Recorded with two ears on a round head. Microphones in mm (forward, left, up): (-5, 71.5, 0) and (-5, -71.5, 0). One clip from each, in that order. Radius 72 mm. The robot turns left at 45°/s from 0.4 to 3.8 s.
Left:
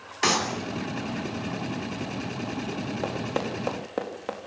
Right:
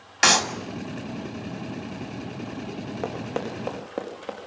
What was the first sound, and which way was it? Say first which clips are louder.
A clap: right 5 dB; 60° right (ahead or behind).